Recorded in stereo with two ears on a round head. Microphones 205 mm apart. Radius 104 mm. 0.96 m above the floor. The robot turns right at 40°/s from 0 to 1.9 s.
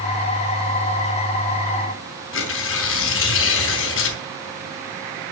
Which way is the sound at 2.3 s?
65° left (ahead or behind).